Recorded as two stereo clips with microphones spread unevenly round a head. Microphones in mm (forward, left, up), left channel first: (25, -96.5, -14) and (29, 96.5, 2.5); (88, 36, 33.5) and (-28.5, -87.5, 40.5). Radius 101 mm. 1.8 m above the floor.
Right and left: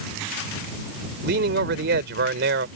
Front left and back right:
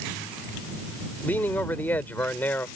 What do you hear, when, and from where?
1.2 s a man speaking: 130° left